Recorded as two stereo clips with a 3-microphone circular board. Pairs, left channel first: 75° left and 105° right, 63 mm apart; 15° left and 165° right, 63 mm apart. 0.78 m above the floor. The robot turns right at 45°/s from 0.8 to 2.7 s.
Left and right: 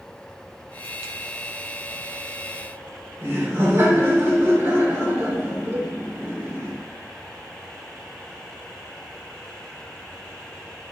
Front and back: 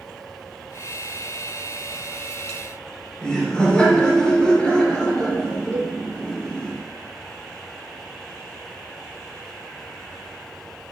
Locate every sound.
3.2 s laughter: 60° right, 3 m
5.7 s a cowbell: 150° right, 1.3 m